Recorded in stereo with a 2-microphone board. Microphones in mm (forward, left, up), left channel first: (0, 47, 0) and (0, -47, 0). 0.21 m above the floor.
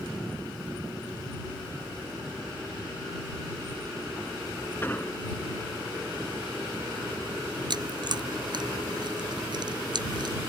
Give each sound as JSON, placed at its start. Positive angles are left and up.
{"t": 4.8, "sound": "an explosion", "side_deg": 25}
{"t": 7.7, "sound": "chewing", "side_deg": -55}